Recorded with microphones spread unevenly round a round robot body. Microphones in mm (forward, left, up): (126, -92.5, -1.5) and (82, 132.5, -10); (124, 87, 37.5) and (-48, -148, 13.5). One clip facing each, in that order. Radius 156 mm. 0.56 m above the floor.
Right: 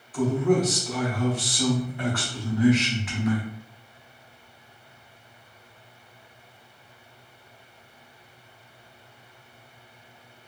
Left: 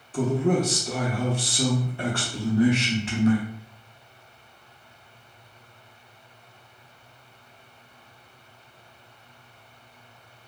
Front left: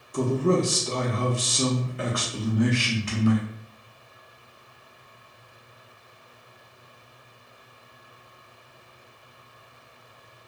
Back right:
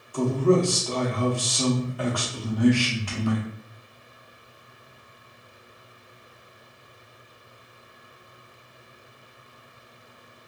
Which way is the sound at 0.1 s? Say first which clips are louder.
Right 1 dB, back right 2 dB; 105° left.